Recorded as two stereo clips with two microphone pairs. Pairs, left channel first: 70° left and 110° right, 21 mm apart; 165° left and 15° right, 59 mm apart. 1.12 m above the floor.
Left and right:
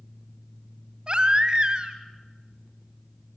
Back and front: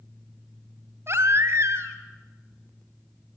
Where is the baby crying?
55° right, 2.5 m.